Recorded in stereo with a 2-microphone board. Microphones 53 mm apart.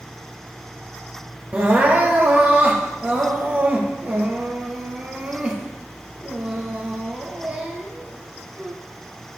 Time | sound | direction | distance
1.5 | crying | 25° right (ahead or behind) | 2 m